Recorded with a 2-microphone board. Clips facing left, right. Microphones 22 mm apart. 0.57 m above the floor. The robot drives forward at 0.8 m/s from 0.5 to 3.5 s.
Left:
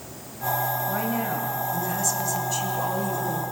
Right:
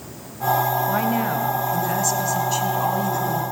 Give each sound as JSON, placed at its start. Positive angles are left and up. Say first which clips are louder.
{"t": 0.9, "sound": "a woman speaking", "louder": "right 5 dB", "side_deg": -25, "distance_m": 3.5}